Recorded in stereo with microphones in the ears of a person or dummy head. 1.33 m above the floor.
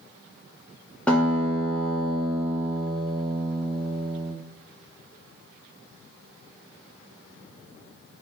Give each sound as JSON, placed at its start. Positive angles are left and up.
{"t": 1.1, "sound": "a guitar", "side_deg": 0, "distance_m": 0.5}